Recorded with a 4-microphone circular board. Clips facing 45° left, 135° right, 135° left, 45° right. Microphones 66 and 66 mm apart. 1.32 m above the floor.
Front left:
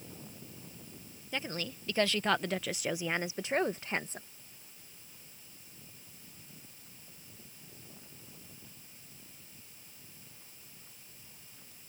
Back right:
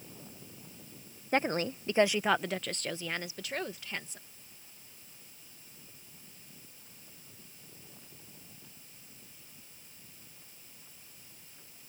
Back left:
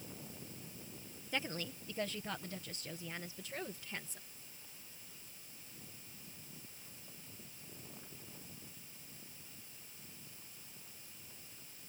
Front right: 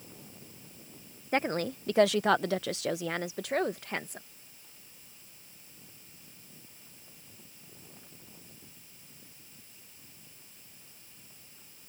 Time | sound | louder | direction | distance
1.3 | a woman speaking | back right 8 dB, front right 11 dB | 90° right | ?